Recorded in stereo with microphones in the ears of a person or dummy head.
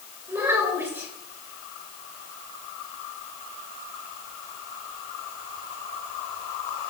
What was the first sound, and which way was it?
A child speaking, 10° right (ahead or behind).